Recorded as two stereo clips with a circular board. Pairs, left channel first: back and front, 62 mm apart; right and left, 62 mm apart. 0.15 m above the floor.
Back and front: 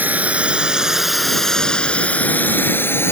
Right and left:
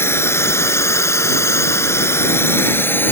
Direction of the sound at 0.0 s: 55° right.